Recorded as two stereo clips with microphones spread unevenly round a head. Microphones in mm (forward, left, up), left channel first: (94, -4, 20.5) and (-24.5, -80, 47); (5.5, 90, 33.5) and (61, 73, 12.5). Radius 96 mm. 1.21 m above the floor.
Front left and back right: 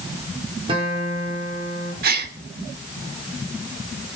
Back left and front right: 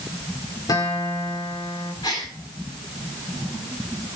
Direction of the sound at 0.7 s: 150° left.